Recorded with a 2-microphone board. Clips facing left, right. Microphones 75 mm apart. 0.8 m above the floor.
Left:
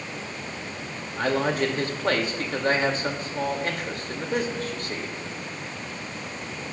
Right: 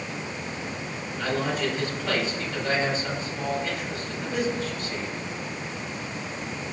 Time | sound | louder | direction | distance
1.2 | a man speaking | left 3 dB | 50° left (ahead or behind) | 2 m